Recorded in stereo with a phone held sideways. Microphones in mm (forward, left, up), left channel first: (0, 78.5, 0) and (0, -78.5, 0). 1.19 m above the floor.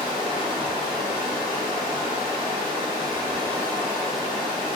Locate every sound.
0.0 s running water: 30° right (ahead or behind), 1.0 m